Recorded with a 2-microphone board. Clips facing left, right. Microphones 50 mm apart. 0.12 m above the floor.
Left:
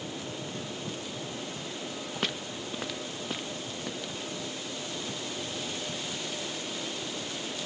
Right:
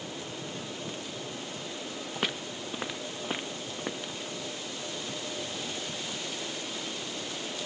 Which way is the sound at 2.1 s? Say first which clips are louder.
Right 1 dB; 5° right (ahead or behind).